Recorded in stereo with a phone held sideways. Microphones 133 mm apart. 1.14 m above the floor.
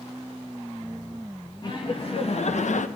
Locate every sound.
1.6 s laughter: 35° left (ahead or behind), 1.3 m; by 2.9 s 75° left (ahead or behind), 0.7 m